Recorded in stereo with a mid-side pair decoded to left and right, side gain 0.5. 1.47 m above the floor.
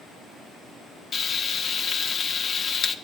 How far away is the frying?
About 0.8 m.